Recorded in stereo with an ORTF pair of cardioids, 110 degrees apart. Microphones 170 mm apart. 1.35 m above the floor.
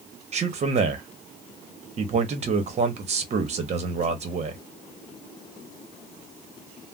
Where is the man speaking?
40° right, 0.9 m.